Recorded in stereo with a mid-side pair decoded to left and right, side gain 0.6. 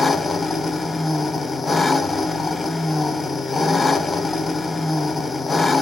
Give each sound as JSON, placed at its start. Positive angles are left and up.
{"t": 0.0, "sound": "an engine running", "azimuth_deg": 15, "distance_m": 0.8}